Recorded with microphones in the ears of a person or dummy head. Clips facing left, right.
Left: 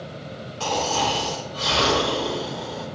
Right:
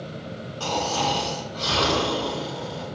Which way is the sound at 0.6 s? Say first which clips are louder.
Left 2 dB; 35° left (ahead or behind).